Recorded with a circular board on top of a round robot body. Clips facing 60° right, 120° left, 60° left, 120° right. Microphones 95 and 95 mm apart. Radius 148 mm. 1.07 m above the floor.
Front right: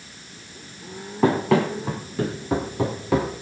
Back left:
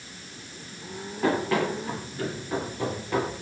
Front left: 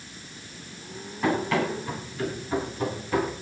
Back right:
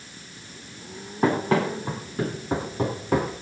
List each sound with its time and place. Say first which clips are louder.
1.2 s running footsteps: front right 5 dB, back right 3 dB; 65° right, 3 m; by 3.3 s 80° right, 2.5 m